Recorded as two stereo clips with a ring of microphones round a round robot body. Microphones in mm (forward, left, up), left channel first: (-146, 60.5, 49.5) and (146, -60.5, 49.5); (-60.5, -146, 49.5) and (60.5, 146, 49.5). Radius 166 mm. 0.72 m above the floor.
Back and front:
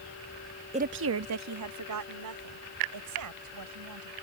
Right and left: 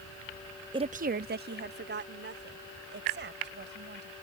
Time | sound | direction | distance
0.7 | a woman speaking | 15° left | ?